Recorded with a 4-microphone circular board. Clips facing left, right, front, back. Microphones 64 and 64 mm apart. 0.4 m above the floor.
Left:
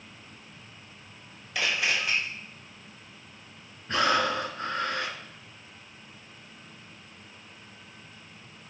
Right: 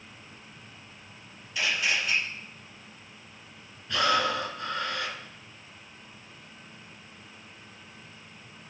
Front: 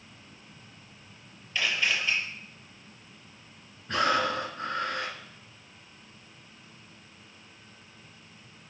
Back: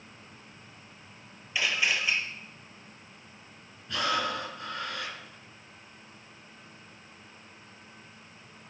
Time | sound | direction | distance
1.6 | a camera shutter | 100° left | 4.5 m
3.9 | breathing | 40° left | 2.5 m